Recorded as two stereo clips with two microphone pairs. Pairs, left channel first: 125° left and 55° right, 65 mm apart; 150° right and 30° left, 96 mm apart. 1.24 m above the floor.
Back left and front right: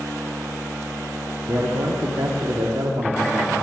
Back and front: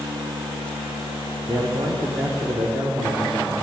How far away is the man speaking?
About 1.1 m.